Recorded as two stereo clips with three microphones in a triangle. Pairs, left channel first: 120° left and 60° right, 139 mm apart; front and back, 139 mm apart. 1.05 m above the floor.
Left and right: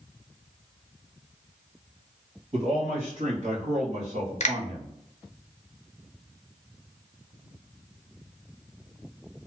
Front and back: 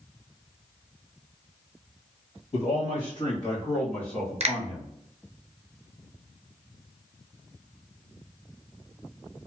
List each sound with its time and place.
2.5 s a man speaking: 35° right, 1.7 m; by 4.9 s 100° right, 1.4 m
4.4 s a finger snap: 145° left, 0.5 m